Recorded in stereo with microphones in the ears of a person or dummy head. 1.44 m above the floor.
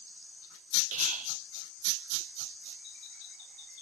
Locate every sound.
0.9 s whispering: 40° right (ahead or behind), 0.7 m